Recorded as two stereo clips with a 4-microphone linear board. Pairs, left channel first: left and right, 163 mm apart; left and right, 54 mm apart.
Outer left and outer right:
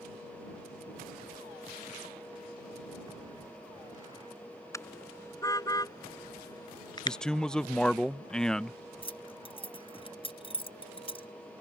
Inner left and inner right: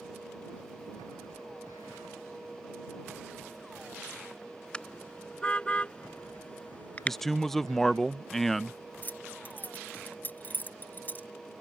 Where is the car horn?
20° left (ahead or behind); by 7.2 s 25° left (ahead or behind).